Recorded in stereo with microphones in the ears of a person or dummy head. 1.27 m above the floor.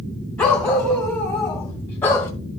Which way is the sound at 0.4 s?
10° left (ahead or behind).